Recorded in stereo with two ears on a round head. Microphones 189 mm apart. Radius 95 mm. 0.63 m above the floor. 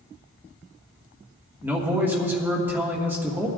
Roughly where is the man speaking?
Centre.